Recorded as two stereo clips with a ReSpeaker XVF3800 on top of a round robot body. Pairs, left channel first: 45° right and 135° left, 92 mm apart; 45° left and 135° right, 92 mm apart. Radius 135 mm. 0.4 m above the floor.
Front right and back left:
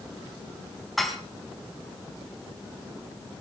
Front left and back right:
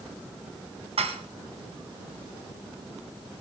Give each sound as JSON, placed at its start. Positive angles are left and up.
{"t": 1.0, "sound": "dishes clattering", "azimuth_deg": -135, "distance_m": 3.0}